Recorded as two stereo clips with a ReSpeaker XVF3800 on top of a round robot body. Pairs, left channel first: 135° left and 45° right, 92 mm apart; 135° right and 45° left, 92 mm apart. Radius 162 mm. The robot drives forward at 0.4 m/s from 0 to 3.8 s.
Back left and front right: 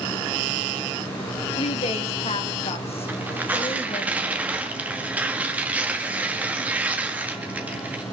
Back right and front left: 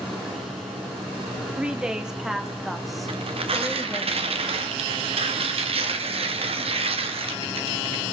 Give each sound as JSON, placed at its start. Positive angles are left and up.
{"t": 1.6, "sound": "a woman speaking", "azimuth_deg": 125, "distance_m": 2.0}
{"t": 3.1, "sound": "tearing paper", "azimuth_deg": 25, "distance_m": 2.0}